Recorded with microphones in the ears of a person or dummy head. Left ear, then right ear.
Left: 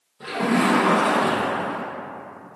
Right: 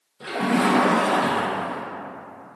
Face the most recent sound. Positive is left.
turn(degrees=-10)  # may be behind; listen again after turning